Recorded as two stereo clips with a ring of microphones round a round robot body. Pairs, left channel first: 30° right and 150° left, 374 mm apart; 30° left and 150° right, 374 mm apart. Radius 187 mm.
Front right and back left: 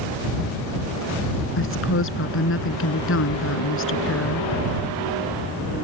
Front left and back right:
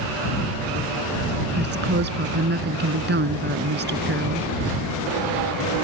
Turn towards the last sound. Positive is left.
turn(degrees=-85)